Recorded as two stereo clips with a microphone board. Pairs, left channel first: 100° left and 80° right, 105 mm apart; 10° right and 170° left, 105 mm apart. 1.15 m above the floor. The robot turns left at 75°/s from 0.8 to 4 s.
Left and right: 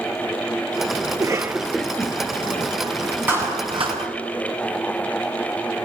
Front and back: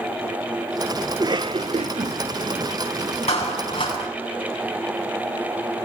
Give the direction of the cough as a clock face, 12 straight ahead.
4 o'clock.